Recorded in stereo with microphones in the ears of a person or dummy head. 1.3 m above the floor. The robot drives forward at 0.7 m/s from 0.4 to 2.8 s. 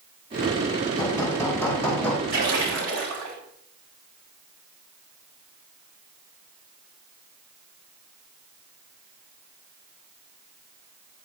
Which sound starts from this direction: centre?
Hammering, at 1.0 s.